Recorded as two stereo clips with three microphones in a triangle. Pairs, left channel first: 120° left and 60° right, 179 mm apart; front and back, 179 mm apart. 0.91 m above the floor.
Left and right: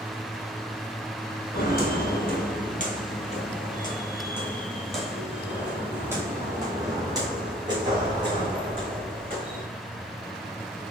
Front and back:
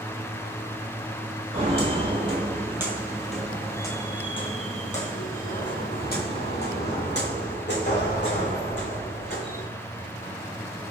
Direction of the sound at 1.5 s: 135° left.